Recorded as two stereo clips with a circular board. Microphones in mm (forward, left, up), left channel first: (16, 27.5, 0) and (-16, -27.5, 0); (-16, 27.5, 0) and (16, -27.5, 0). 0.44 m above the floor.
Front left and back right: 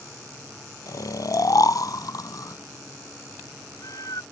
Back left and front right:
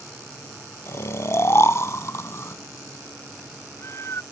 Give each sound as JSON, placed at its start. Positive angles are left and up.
{"t": 0.9, "sound": "snoring", "azimuth_deg": 75}